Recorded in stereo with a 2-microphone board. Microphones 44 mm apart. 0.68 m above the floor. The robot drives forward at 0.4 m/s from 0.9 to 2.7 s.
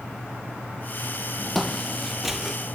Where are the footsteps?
5° left (ahead or behind), 1.7 m; by 2.6 s 10° right (ahead or behind), 0.9 m.